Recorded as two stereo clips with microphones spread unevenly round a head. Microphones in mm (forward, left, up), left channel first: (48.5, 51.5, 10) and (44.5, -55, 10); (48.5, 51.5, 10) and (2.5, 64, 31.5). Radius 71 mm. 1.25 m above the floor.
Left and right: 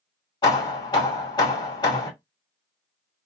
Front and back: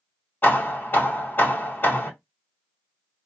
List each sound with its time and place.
0.4 s hammering: 40° left, 2 m